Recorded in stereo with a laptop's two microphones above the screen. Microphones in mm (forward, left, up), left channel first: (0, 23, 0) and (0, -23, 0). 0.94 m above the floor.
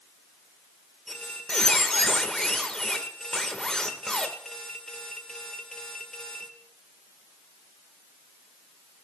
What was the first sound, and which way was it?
A squeak, 15° left (ahead or behind).